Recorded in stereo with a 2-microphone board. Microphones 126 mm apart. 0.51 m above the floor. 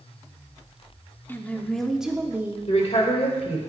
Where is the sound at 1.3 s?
15° left (ahead or behind), 0.8 m; by 2.6 s 20° right (ahead or behind), 0.7 m.